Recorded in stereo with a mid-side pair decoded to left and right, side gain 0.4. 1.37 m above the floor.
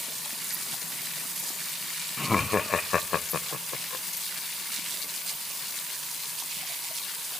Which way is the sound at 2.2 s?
15° left.